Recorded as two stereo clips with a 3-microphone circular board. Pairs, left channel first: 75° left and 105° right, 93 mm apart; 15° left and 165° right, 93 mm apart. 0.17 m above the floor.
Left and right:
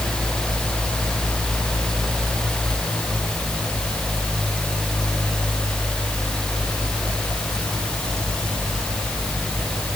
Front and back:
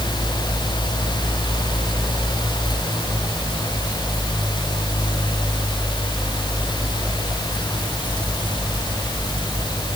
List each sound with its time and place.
Only background noise.